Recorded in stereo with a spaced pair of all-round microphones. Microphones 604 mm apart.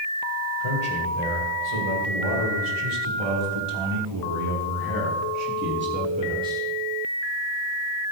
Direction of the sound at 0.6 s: 90° right.